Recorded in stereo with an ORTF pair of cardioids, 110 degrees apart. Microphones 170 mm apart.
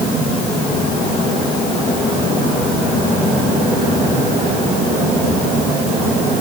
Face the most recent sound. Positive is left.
No sound to turn to.